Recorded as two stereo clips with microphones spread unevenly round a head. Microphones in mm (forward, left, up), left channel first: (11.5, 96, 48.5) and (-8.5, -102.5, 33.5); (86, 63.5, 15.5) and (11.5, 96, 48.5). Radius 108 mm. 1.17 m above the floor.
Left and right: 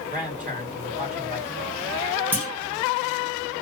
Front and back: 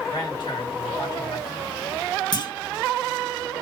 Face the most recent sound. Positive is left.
turn(degrees=-15)